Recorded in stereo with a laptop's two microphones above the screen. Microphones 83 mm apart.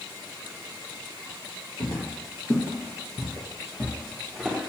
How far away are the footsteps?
About 2.5 m.